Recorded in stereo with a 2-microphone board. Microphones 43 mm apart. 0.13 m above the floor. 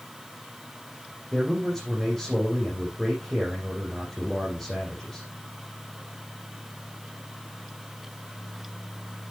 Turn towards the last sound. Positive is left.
turn(degrees=5)  # may be behind; listen again after turning